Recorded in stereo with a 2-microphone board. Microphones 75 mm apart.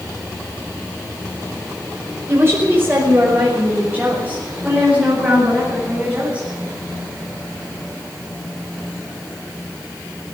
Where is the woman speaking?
30° right (ahead or behind), 4.5 m; by 6.5 s 15° right (ahead or behind), 9.5 m.